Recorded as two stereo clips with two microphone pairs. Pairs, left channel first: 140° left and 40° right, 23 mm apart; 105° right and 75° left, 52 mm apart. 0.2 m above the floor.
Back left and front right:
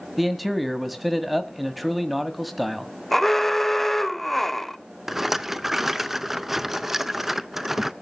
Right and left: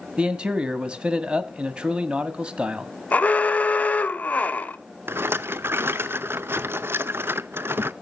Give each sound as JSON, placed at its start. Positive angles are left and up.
{"t": 0.2, "sound": "a man speaking", "azimuth_deg": 40, "distance_m": 1.5}
{"t": 3.1, "sound": "an alarm", "azimuth_deg": -140, "distance_m": 0.8}
{"t": 5.1, "sound": "a rattle", "azimuth_deg": 35, "distance_m": 0.5}